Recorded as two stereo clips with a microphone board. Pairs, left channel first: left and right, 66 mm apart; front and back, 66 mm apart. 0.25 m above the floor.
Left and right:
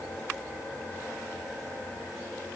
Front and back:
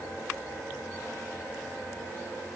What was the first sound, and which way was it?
Only background noise.